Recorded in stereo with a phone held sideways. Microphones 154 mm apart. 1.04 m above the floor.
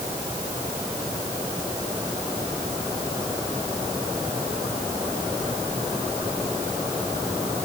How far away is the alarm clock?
No alarm clock in this recording.